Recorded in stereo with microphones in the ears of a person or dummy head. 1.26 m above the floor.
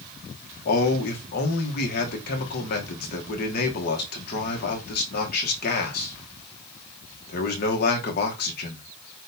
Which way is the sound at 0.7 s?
50° left (ahead or behind).